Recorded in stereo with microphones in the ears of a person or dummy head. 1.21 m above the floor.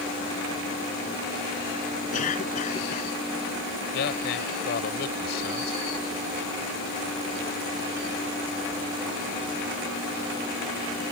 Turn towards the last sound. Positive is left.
turn(degrees=60)  # may be behind; listen again after turning